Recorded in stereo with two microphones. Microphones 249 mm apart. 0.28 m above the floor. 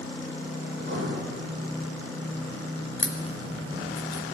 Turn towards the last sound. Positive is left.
turn(degrees=50)  # may be behind; listen again after turning